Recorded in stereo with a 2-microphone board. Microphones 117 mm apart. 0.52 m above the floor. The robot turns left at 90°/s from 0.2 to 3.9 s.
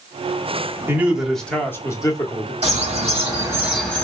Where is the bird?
75° right, 1.6 m; by 4.0 s 170° left, 1.6 m.